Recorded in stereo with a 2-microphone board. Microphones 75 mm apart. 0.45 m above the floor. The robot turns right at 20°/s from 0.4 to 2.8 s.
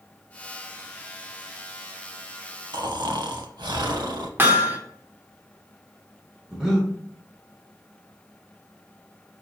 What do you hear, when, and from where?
2.7 s snoring: 70° right (ahead or behind), 0.5 m; by 4.3 s 75° right (ahead or behind), 0.5 m
4.4 s hammering: 25° right (ahead or behind), 0.7 m
6.5 s breathing: 5° right (ahead or behind), 1.2 m